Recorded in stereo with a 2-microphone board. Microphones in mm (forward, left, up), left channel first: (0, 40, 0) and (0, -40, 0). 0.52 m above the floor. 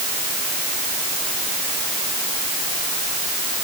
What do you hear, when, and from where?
Only background noise.